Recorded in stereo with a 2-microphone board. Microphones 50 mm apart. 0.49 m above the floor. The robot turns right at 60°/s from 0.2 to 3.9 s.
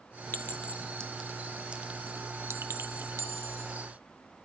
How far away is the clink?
About 0.6 m.